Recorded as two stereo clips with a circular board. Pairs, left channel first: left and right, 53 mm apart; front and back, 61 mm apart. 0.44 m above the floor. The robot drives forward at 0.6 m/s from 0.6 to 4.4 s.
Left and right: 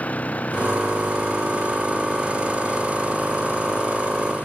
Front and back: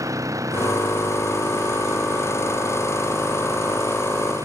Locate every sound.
0.0 s an engine running: 150° left; by 4.5 s 155° left